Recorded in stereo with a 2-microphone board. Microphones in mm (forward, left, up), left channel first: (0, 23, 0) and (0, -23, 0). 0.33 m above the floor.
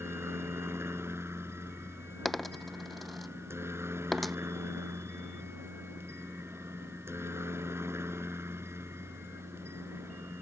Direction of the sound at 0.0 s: 70° right (ahead or behind).